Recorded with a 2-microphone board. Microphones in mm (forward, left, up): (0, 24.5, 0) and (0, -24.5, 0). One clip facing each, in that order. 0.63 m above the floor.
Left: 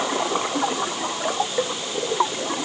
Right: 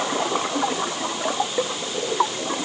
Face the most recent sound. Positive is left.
No sound to turn to.